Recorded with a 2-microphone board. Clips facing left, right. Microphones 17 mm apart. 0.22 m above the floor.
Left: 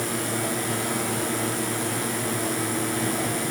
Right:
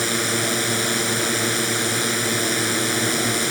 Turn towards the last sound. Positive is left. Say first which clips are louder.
# right 5 dB
turn(degrees=-55)  # may be behind; listen again after turning